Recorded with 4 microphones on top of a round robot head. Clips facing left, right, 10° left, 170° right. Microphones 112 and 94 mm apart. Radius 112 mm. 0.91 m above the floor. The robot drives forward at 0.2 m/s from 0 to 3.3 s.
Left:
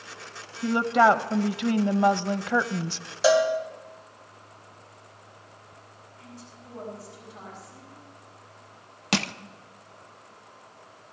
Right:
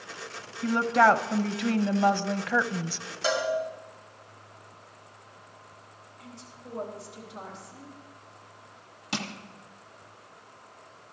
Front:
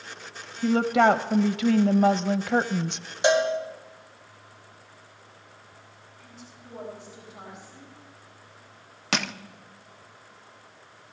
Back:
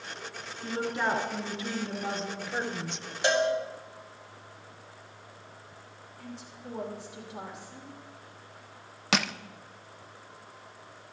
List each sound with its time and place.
0.6 s a woman speaking: 15° left, 1.0 m; by 3.1 s 25° left, 0.6 m
3.2 s a cowbell: 80° left, 2.0 m
6.2 s a woman speaking: 160° right, 7 m
9.1 s crushing: 100° left, 0.5 m